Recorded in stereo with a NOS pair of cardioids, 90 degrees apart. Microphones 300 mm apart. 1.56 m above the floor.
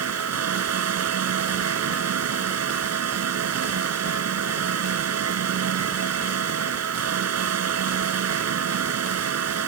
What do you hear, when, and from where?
0.0 s a fan: 55° right